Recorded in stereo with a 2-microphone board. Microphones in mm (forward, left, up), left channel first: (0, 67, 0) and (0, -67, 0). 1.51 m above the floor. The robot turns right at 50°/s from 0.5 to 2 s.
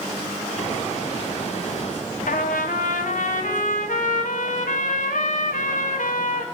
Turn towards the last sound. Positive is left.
turn(degrees=75)  # may be behind; listen again after turning